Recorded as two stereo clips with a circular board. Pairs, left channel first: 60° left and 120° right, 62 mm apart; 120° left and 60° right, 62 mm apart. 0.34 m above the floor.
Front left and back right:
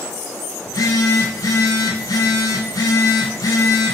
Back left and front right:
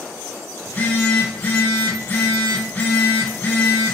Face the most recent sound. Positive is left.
turn(degrees=60)